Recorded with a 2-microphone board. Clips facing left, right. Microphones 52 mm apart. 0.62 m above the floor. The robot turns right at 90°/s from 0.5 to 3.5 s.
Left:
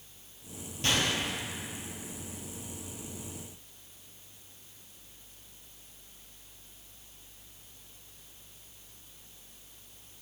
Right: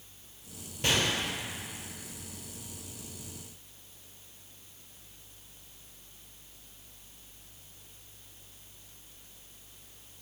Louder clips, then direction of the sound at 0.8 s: Right 1 dB; 20° right (ahead or behind).